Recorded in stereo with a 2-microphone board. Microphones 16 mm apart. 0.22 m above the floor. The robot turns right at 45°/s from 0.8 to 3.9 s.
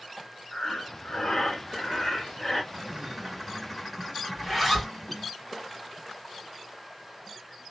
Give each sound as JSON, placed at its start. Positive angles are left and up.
{"t": 0.5, "sound": "breathing", "azimuth_deg": 95, "distance_m": 1.4}
{"t": 2.7, "sound": "a bird", "azimuth_deg": -40, "distance_m": 0.8}
{"t": 4.4, "sound": "a zipper", "side_deg": 0, "distance_m": 1.9}